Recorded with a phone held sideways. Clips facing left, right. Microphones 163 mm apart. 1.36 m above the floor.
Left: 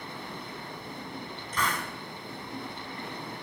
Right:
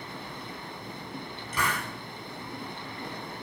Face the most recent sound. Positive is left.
turn(degrees=-10)  # may be behind; listen again after turning